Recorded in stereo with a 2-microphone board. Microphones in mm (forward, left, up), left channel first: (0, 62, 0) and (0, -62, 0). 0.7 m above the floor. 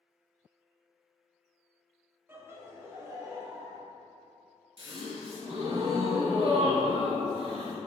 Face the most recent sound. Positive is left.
turn(degrees=-50)  # may be behind; listen again after turning